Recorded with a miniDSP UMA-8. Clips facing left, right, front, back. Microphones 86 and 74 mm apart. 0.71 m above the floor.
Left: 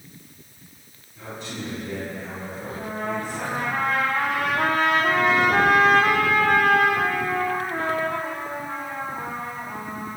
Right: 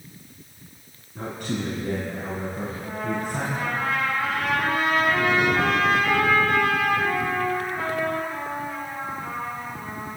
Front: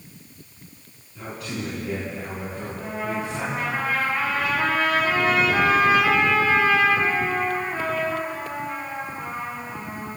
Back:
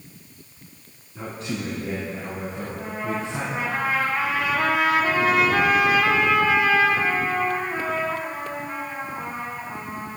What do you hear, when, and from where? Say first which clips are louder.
1.1 s a man speaking: right 5 dB, back 2 dB; 120° right, 7.5 m
2.7 s a trumpet: left 1 dB, front 1 dB; 110° left, 7 m